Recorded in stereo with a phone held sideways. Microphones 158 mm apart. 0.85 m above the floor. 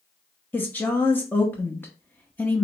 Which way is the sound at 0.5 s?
10° left (ahead or behind).